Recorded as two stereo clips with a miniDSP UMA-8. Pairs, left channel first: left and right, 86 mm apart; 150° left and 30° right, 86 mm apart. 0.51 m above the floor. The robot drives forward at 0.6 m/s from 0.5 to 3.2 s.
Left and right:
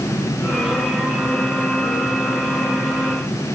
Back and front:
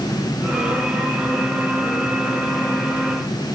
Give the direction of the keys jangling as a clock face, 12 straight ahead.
No keys jangling in this recording.